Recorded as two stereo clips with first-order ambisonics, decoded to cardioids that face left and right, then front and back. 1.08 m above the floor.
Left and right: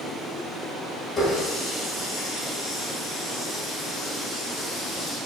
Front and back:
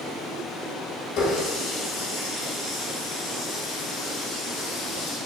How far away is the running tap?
About 1.4 m.